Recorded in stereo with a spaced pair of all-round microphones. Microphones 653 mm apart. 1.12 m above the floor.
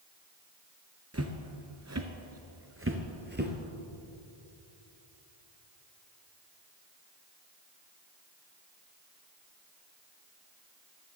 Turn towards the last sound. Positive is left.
turn(degrees=-15)  # may be behind; listen again after turning